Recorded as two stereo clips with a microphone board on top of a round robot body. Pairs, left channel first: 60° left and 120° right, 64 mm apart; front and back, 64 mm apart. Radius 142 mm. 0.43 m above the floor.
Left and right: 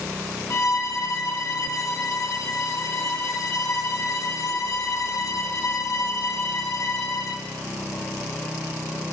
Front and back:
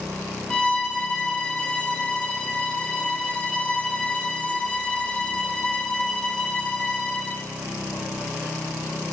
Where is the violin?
65° left, 1.4 m.